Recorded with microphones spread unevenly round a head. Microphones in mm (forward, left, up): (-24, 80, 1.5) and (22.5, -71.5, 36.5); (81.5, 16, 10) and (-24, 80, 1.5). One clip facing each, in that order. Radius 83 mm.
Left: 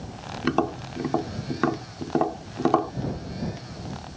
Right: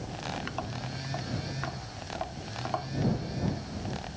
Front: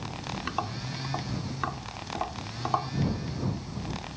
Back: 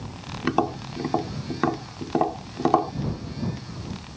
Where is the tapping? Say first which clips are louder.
Left 12 dB, back 13 dB; 120° left.